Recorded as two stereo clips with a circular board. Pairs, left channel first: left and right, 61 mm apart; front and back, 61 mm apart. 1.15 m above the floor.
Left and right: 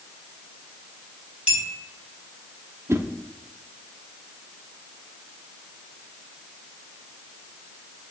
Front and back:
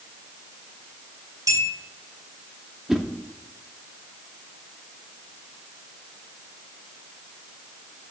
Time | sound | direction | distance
1.5 | a clink | 165° right | 4 m
2.9 | a whoosh | 100° right | 0.8 m